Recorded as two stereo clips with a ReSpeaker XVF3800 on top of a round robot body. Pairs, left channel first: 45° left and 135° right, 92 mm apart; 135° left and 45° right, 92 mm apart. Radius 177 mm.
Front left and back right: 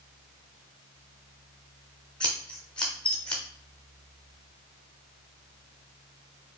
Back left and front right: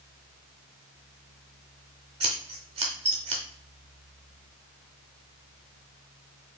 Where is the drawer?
No drawer in this recording.